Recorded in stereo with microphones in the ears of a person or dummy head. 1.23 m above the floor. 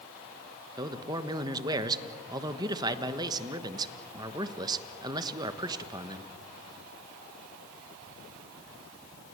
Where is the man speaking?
20° right (ahead or behind), 1.3 m.